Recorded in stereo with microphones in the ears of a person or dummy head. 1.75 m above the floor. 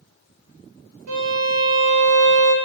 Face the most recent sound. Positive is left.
turn(degrees=-85)